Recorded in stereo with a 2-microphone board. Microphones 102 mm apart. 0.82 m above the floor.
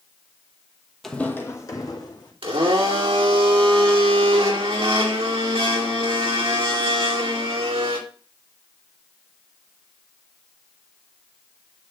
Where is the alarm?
No alarm in this recording.